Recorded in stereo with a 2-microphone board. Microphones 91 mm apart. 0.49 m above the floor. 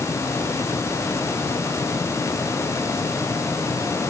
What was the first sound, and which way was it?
Only background noise.